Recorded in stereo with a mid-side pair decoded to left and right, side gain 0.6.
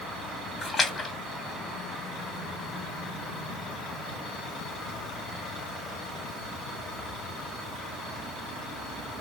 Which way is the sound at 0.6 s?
30° left.